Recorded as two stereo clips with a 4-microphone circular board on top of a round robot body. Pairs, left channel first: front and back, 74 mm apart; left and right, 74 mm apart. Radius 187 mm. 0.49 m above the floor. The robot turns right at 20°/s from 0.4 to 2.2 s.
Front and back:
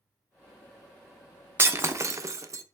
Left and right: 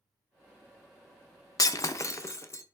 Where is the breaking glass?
125° left, 0.7 m; by 2.6 s 135° left, 0.7 m.